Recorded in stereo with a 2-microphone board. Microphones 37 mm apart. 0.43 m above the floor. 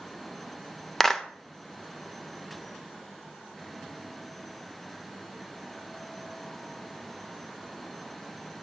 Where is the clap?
15° left (ahead or behind), 0.7 m.